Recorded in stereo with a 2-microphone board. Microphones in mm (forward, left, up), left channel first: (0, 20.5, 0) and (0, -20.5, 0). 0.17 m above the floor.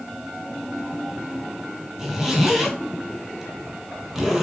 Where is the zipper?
10° right (ahead or behind), 0.7 m.